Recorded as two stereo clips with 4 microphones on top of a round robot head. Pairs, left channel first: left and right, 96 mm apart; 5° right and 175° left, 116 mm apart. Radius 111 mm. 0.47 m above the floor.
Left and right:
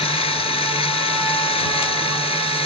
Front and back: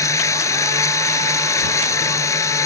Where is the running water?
60° left.